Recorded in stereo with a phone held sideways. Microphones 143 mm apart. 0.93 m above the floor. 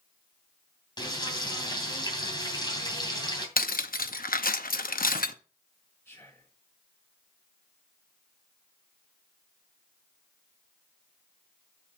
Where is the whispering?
15° left (ahead or behind), 5.5 m.